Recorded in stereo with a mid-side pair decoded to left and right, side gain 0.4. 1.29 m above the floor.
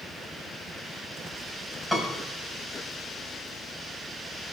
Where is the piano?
5° left, 5.5 m.